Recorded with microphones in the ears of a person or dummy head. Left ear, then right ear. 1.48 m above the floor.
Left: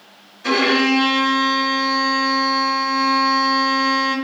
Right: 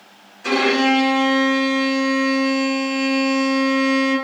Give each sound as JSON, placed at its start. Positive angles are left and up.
{"t": 0.4, "sound": "a violin", "side_deg": -5, "distance_m": 1.4}